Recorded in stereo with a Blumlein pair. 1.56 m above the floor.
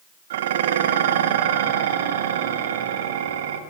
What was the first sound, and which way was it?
Dishes clattering, 55° right.